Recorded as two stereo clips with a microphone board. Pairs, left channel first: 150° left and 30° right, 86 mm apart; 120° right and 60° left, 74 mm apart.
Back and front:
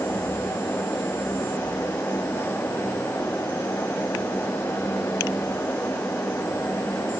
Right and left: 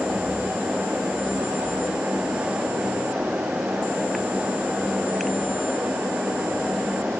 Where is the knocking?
I don't hear knocking.